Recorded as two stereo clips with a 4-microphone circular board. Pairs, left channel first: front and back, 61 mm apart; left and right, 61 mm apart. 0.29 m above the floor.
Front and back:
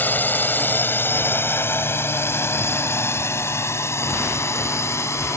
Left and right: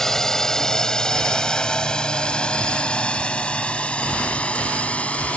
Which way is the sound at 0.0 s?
15° left.